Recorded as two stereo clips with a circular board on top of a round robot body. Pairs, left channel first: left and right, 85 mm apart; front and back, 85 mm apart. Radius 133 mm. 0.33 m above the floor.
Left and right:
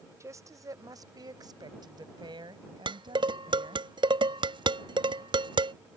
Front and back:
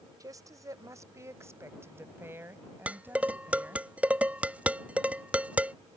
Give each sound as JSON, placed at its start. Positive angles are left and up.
{"t": 0.2, "sound": "a woman speaking", "azimuth_deg": -140}
{"t": 2.9, "sound": "dishes clattering", "azimuth_deg": -105}